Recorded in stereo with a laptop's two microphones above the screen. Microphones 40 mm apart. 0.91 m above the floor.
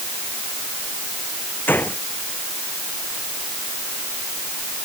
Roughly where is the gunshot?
Left.